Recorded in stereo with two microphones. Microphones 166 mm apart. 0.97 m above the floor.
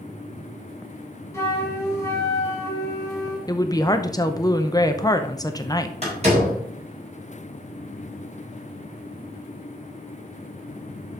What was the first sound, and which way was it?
A flute, 15° left (ahead or behind).